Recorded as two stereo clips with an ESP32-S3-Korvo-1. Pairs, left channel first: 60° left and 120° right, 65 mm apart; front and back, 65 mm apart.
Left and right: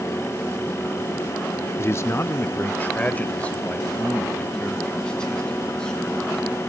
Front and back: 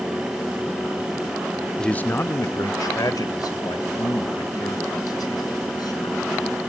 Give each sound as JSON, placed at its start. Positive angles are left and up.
{"t": 1.8, "sound": "a man speaking", "azimuth_deg": 75, "distance_m": 0.9}